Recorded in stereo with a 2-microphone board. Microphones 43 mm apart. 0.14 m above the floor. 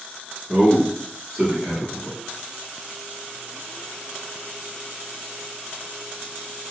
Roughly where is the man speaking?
Centre.